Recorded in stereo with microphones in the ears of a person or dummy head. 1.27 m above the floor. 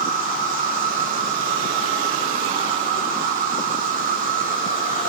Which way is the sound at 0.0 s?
40° right (ahead or behind).